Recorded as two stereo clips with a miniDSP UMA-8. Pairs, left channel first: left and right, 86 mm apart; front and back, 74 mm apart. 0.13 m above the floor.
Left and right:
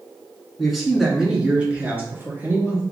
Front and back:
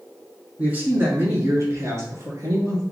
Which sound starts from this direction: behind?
A man speaking, at 0.6 s.